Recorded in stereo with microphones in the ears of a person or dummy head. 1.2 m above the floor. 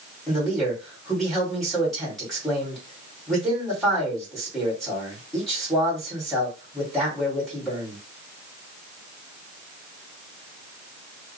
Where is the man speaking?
Centre (ahead or behind), 2.5 m.